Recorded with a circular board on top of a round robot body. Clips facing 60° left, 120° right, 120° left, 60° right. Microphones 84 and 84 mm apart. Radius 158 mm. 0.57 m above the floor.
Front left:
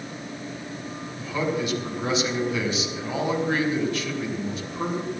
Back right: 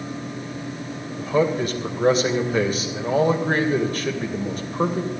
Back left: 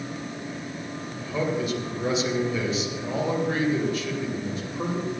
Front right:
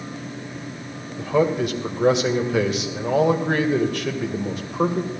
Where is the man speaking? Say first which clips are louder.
Back right 6 dB, front right 7 dB; 75° right, 2.5 m.